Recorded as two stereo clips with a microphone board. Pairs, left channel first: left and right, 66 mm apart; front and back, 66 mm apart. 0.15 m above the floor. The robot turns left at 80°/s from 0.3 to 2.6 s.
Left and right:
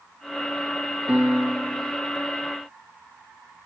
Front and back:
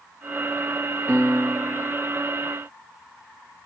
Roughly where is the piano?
Behind right.